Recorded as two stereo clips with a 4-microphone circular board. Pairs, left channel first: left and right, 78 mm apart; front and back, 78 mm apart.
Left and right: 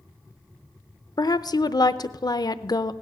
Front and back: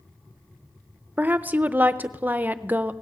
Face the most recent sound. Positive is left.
turn(degrees=110)